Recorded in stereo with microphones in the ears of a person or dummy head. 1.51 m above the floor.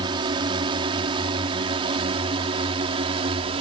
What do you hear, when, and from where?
0.0 s a drone: 25° right (ahead or behind); by 3.6 s 30° right (ahead or behind)